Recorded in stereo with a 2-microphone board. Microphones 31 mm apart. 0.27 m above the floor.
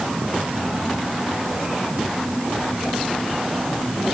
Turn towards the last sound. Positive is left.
No sound to turn to.